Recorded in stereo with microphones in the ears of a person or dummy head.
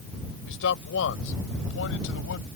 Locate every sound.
0.5 s a man speaking: 70° left (ahead or behind); by 2.5 s 75° left (ahead or behind)